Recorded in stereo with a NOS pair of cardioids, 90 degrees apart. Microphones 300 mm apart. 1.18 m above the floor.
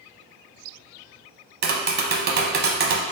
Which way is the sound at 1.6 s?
35° right.